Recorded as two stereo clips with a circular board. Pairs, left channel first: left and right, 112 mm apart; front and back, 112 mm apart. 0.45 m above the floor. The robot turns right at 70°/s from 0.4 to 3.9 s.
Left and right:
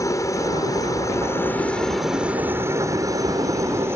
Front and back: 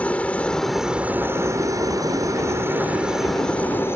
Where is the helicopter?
70° left; by 4.0 s 45° right.